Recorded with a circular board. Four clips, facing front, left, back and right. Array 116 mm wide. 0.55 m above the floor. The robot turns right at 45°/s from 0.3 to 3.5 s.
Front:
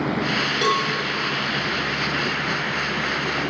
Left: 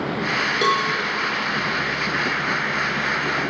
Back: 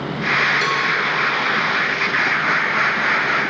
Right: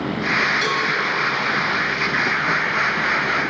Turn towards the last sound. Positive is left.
turn(degrees=-155)